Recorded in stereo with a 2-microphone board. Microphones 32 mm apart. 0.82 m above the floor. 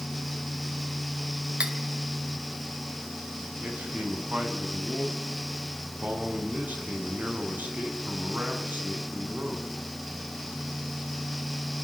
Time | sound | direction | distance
1.6 | cutlery clinking | 35° right (ahead or behind) | 2.5 m
3.6 | a man speaking | 60° right (ahead or behind) | 6 m